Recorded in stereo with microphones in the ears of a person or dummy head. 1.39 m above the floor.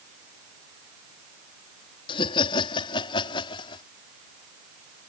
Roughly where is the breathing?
I don't hear breathing.